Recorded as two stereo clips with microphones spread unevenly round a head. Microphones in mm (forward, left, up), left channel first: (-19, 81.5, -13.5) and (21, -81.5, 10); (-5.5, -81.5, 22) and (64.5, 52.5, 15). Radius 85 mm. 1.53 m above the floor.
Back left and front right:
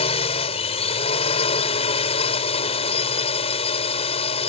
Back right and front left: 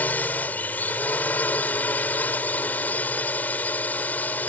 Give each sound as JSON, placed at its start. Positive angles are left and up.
{"t": 0.0, "sound": "a drone", "azimuth_deg": 160}